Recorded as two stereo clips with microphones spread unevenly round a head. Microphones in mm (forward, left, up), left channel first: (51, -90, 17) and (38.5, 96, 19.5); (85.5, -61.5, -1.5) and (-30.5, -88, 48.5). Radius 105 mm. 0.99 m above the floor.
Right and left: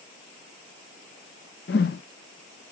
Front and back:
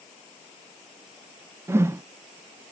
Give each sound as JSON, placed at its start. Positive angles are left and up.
{"t": 1.7, "sound": "a whoosh", "azimuth_deg": -120, "distance_m": 0.6}